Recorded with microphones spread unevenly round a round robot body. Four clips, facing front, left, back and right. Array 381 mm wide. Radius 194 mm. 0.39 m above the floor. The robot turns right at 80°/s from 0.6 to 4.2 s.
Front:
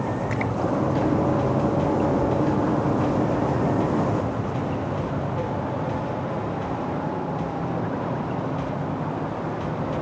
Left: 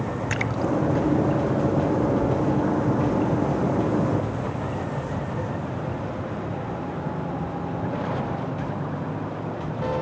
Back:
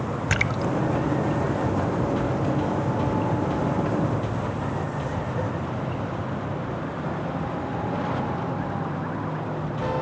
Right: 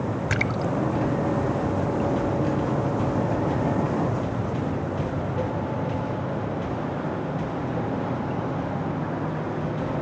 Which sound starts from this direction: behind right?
A splash, at 0.3 s.